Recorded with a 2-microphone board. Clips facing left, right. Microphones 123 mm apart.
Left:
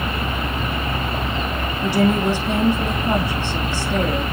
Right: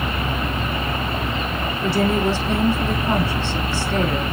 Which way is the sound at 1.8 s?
15° left (ahead or behind).